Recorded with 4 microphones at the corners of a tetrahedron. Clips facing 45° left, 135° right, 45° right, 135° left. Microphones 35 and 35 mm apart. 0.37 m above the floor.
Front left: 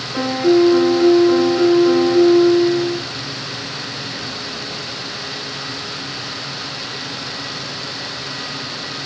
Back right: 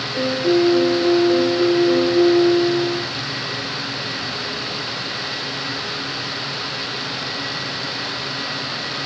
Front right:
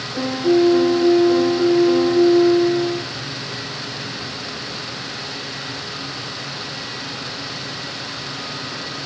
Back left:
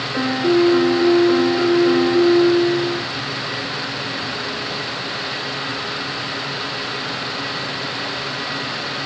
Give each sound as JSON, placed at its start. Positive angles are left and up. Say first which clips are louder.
{"t": 0.1, "sound": "a piano", "louder": "front left 4 dB, even", "azimuth_deg": 85, "distance_m": 1.3}